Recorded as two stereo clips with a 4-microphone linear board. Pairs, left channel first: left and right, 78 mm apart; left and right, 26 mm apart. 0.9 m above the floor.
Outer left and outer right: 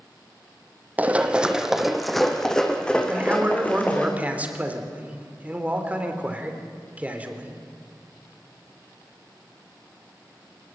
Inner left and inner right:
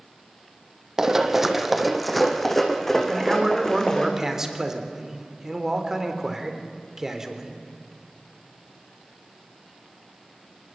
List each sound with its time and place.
1.0 s running footsteps: 20° right (ahead or behind), 2.0 m; by 4.1 s 20° left (ahead or behind), 4 m
3.1 s a man speaking: 20° right (ahead or behind), 3.5 m